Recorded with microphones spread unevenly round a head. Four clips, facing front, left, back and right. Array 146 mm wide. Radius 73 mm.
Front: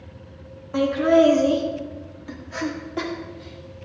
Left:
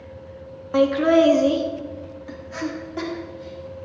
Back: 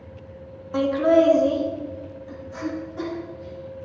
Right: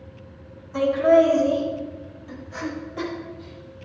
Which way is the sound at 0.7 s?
80° left.